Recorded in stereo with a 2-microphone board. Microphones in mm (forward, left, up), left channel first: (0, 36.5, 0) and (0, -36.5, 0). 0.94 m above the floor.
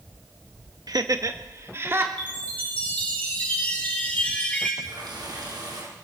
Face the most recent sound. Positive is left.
turn(degrees=-75)  # may be behind; listen again after turning